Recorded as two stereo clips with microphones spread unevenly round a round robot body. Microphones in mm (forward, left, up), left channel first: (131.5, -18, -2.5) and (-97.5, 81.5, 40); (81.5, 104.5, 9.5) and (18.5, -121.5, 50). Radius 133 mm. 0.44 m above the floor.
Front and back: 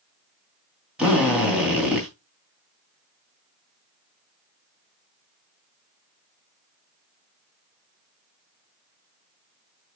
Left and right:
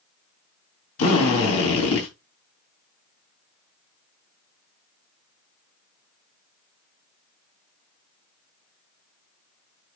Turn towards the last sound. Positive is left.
turn(degrees=70)